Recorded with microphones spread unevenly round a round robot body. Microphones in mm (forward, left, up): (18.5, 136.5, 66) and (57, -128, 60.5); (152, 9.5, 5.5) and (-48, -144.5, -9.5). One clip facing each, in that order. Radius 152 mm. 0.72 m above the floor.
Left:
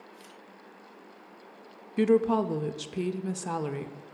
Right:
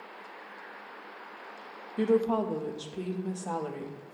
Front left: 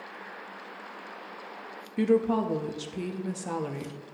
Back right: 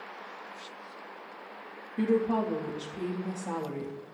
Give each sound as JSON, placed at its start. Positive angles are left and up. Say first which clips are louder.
{"t": 2.0, "sound": "a woman speaking", "louder": "left 3 dB, front left 3 dB", "azimuth_deg": 80, "distance_m": 0.6}